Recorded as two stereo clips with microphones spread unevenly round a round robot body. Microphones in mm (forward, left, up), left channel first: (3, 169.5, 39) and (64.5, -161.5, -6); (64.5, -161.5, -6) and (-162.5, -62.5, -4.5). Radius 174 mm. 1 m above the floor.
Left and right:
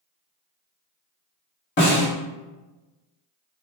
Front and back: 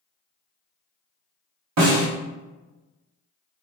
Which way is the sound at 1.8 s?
160° left.